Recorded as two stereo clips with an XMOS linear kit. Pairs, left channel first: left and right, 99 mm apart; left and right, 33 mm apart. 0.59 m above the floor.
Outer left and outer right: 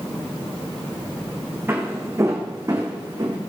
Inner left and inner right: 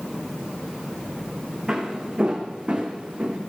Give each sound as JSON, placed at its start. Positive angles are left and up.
{"t": 1.7, "sound": "footsteps", "side_deg": -25, "distance_m": 2.0}